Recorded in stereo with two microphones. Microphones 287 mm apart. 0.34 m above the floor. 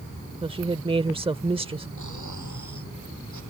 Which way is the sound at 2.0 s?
85° left.